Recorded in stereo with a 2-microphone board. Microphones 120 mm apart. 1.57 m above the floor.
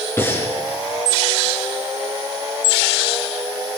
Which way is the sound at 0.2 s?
20° left (ahead or behind).